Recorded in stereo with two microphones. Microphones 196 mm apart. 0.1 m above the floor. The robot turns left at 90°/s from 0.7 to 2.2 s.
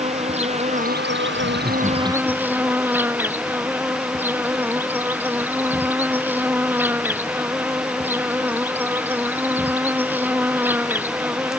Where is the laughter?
120° right; by 2.7 s 165° left.